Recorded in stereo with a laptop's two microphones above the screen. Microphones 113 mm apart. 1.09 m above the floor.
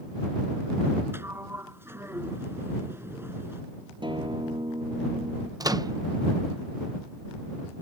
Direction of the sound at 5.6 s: 35° right (ahead or behind).